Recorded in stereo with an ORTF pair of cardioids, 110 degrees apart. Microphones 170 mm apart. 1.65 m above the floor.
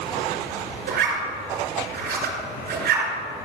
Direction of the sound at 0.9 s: 70° right.